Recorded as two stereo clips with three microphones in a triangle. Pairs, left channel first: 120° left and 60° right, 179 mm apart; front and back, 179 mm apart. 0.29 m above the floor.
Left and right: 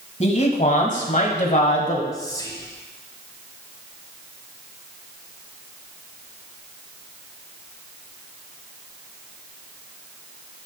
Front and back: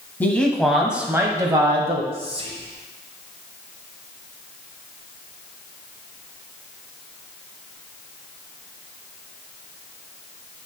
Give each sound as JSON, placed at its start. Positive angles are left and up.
{"t": 0.2, "sound": "a man speaking", "azimuth_deg": 80, "distance_m": 1.8}
{"t": 2.1, "sound": "whispering", "azimuth_deg": 170, "distance_m": 1.4}